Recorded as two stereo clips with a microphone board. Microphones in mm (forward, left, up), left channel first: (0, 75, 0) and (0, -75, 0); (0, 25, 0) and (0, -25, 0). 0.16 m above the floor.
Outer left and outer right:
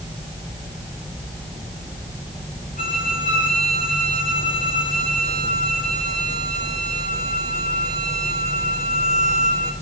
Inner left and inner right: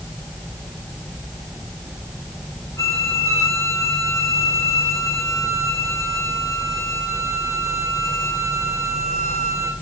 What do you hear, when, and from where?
2.8 s a violin: 75° left (ahead or behind), 3.5 m